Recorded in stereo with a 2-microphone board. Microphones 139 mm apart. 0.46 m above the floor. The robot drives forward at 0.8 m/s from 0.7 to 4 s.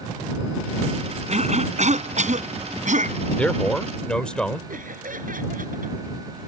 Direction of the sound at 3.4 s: 10° left (ahead or behind).